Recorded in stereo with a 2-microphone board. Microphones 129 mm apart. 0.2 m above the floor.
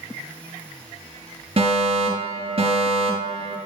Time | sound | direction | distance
1.6 | a fire alarm | 45° right (ahead or behind) | 6 m